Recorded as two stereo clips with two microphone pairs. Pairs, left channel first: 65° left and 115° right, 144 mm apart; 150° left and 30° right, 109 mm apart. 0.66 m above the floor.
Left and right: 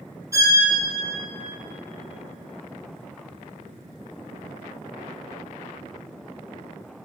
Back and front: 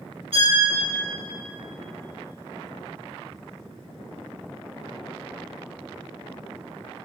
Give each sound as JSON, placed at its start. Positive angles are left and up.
{"t": 0.3, "sound": "a violin", "azimuth_deg": -50, "distance_m": 1.0}